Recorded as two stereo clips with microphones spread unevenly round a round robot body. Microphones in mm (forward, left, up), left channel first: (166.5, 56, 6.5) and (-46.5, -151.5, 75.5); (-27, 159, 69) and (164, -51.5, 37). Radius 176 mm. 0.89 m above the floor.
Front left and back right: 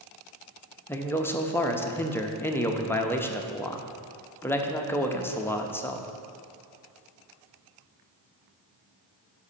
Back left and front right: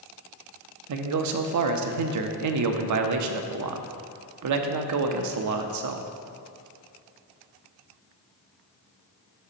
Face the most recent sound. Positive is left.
turn(degrees=-35)